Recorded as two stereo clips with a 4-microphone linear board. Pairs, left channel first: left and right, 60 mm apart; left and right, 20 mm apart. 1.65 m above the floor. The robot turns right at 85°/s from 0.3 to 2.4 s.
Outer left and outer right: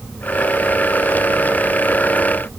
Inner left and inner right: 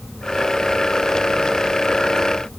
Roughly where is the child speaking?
I don't hear a child speaking.